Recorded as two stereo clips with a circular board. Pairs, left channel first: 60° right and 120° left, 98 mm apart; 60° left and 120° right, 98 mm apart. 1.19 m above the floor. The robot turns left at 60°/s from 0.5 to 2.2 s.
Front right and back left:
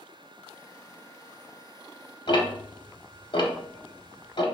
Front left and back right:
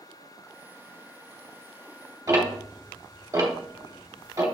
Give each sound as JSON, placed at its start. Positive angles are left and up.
{"t": 2.3, "sound": "ticking", "azimuth_deg": -75, "distance_m": 1.1}